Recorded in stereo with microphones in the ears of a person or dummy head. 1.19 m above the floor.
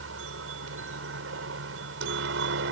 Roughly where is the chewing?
No chewing in this recording.